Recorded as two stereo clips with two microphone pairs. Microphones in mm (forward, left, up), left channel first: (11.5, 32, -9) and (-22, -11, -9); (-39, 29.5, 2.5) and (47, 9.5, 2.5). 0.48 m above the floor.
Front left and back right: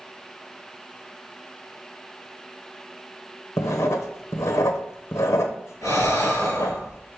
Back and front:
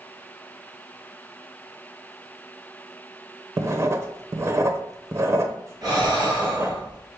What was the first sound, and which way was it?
Writing, 40° left.